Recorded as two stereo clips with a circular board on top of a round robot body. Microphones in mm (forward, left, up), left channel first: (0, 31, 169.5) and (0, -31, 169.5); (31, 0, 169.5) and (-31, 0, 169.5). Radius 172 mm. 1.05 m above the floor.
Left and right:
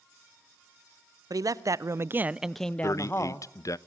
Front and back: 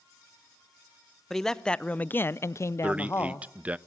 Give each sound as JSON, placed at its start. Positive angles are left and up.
{"t": 1.3, "sound": "a man speaking", "azimuth_deg": -85, "distance_m": 1.0}
{"t": 2.8, "sound": "a man speaking", "azimuth_deg": 115, "distance_m": 0.7}